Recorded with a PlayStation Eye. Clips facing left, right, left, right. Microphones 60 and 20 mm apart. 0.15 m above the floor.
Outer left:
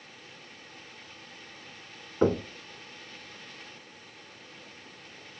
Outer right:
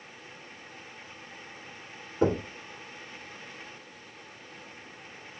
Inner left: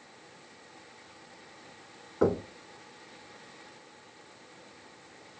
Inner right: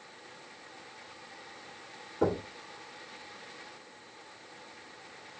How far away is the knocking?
About 1.1 m.